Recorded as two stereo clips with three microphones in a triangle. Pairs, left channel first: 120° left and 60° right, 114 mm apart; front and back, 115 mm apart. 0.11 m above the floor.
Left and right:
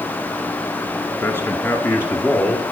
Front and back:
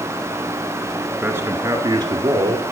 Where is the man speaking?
140° left, 1.3 m; by 2.6 s straight behind, 1.8 m.